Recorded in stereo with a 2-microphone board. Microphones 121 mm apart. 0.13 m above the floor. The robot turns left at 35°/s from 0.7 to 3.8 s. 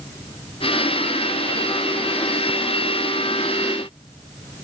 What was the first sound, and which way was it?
Only background noise.